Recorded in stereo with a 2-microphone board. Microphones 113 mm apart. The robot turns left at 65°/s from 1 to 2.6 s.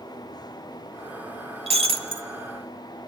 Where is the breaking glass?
100° right, 1.0 m; by 2.3 s 140° right, 1.0 m.